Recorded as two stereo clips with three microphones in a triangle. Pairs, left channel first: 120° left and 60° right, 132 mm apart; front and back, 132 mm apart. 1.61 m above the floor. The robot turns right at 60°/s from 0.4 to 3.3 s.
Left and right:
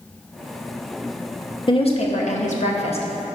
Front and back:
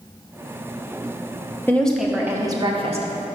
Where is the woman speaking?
75° left, 0.9 m; by 3.4 s 170° left, 0.9 m.